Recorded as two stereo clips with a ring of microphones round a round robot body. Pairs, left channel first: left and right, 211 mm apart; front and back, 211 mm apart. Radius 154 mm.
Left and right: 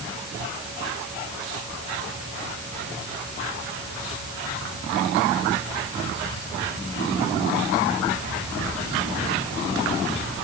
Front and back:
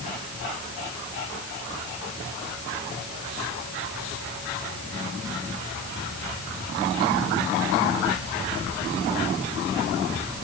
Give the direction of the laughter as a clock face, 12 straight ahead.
No laughter in this recording.